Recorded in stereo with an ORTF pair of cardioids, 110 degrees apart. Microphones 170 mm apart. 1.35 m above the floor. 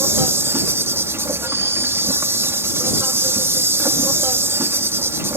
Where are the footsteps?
No footsteps in this recording.